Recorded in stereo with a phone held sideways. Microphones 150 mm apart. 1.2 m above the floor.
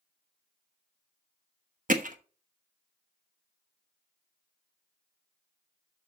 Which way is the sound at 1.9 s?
55° right (ahead or behind).